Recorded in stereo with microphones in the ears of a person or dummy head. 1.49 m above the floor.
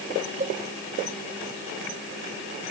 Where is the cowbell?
30° right (ahead or behind).